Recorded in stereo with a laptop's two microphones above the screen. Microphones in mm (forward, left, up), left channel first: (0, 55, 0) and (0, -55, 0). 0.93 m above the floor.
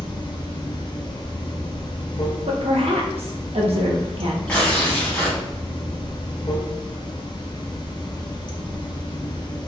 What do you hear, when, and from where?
0.0 s running water: 45° left (ahead or behind), 0.8 m
2.5 s a woman speaking: 65° right (ahead or behind), 0.8 m
4.5 s tearing paper: 10° left (ahead or behind), 1.5 m